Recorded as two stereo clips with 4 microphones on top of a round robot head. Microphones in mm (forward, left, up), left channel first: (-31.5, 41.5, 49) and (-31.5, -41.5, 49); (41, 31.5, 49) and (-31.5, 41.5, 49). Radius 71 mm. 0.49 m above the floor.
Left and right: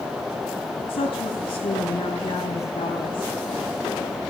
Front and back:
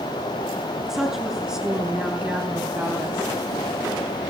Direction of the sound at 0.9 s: 90° left.